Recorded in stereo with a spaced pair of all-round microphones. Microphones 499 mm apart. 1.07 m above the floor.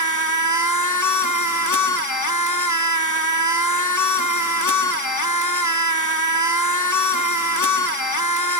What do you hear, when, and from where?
0.0 s a machine running: 35° left (ahead or behind), 1.0 m